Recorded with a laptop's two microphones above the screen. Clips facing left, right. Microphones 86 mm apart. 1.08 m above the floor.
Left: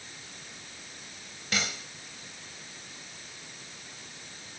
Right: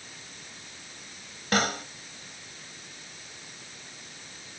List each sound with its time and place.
1.5 s a snare drum: 50° right (ahead or behind)